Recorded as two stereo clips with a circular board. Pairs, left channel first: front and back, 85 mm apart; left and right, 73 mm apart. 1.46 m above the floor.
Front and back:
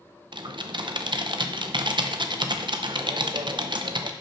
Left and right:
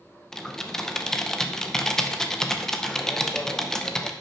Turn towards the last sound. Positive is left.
turn(degrees=170)